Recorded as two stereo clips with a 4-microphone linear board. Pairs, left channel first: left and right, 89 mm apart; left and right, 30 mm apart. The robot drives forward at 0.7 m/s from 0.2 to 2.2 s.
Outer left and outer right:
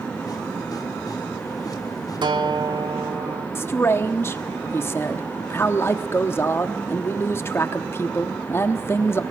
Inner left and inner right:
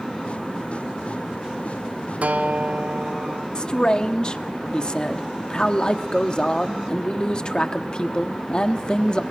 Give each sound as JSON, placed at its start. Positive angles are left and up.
{"t": 2.2, "sound": "a guitar", "side_deg": -60, "distance_m": 1.2}
{"t": 3.5, "sound": "a man speaking", "side_deg": 30, "distance_m": 1.1}